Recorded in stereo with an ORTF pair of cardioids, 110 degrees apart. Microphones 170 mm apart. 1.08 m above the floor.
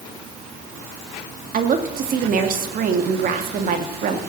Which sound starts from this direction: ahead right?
A woman speaking, at 1.5 s.